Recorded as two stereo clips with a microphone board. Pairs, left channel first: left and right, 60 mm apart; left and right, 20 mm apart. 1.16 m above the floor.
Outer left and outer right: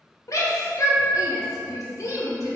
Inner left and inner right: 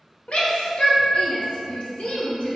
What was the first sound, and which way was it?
A shout, 65° left (ahead or behind).